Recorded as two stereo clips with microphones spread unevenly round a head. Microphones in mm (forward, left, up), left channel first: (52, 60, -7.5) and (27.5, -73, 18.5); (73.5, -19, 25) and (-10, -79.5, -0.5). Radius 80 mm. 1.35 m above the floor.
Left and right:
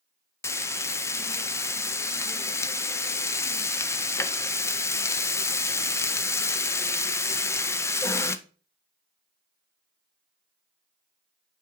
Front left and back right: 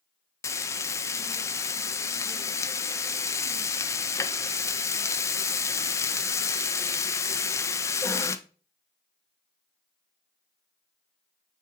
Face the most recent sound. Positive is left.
turn(degrees=5)